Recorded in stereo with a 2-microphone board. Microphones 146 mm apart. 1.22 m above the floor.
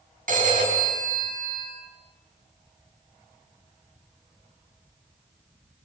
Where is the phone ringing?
75° right (ahead or behind), 6 m.